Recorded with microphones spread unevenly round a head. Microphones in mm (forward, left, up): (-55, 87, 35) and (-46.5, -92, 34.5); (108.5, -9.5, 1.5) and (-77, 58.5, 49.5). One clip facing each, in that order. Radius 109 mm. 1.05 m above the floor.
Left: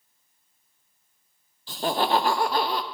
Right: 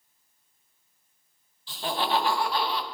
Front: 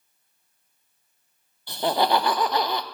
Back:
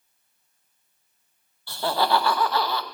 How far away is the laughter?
About 0.5 m.